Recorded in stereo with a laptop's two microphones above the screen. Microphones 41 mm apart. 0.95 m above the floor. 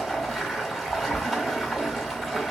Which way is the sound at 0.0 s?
Centre (ahead or behind).